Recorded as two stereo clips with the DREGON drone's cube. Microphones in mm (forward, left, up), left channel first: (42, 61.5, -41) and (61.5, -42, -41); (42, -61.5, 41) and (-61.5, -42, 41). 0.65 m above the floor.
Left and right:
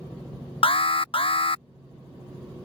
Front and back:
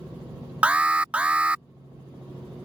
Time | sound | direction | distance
0.6 | an alarm | 95° left | ?